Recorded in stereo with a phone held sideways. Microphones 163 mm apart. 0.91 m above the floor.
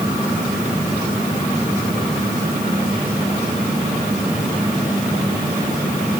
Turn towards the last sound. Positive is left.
No sound to turn to.